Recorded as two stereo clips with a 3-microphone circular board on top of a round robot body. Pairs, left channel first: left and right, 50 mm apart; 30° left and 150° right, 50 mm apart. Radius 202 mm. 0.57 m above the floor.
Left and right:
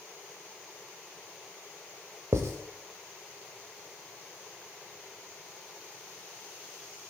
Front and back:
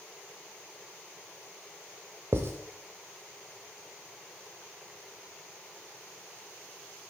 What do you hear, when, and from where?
2.3 s writing: 115° right, 0.5 m